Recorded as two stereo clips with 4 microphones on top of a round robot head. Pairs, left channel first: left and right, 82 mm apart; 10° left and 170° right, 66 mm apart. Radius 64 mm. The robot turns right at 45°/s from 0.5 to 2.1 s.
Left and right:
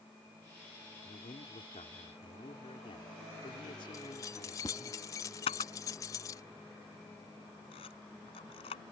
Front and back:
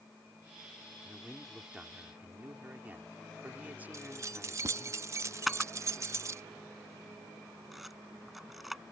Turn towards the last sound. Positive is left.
turn(degrees=100)